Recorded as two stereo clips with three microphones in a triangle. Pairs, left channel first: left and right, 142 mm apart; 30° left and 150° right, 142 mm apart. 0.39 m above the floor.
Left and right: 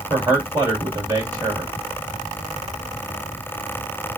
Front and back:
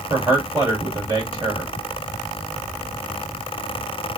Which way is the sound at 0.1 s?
120° right.